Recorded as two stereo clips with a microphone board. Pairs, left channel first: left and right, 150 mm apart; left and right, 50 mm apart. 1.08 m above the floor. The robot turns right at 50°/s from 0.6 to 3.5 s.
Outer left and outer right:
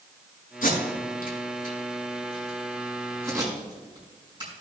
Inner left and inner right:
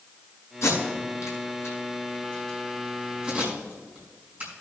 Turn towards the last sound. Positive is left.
turn(degrees=-30)  # may be behind; listen again after turning